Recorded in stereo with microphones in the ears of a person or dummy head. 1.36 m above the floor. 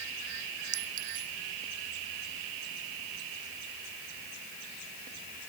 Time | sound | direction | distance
0.7 | a clink | 75° right (ahead or behind) | ?